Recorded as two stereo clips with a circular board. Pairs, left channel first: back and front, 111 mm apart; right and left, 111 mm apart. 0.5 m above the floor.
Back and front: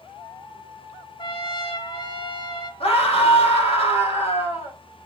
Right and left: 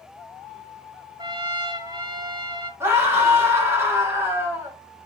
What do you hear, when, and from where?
1.2 s a trumpet: 135° left, 1.0 m
2.8 s a scream: 155° left, 3.5 m